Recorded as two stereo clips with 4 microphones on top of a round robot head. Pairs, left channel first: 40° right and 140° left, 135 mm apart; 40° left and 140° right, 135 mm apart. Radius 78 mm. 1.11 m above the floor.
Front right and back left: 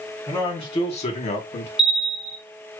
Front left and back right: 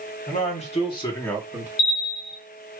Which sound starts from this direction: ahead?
A man speaking, at 0.3 s.